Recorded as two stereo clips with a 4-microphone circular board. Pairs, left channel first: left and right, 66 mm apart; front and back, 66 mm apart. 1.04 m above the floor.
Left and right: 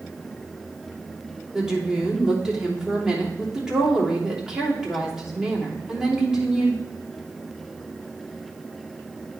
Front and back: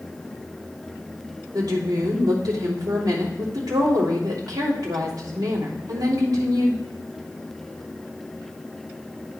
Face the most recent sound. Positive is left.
turn(degrees=-170)